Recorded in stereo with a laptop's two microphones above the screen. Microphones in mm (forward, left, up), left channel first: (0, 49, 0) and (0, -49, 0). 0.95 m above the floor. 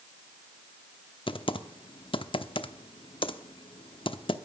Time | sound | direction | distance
1.3 | typing on a keyboard | 60° left (ahead or behind) | 0.8 m